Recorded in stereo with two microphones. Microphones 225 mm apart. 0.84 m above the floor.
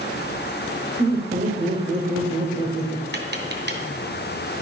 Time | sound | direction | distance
1.0 | laughter | 40° right (ahead or behind) | 2.5 m
3.1 | tapping | 50° right (ahead or behind) | 2.5 m